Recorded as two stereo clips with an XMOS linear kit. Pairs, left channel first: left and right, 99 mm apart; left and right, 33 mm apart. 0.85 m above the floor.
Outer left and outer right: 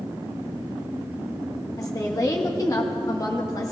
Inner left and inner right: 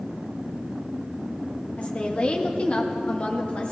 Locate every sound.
1.8 s a woman speaking: 35° left (ahead or behind), 1.2 m